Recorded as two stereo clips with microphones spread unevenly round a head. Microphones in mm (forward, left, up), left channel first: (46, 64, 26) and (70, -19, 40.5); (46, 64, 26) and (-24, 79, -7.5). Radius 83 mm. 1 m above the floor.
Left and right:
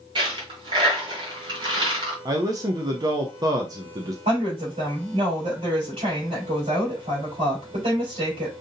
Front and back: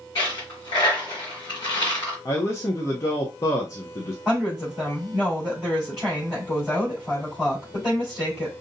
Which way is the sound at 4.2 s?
105° right.